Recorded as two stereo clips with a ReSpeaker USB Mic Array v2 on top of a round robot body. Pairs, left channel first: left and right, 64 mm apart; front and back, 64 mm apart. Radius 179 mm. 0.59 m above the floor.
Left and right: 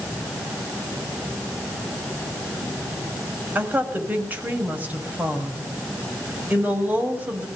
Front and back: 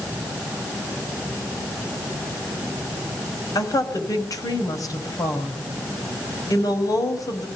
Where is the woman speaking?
25° right, 5.5 m.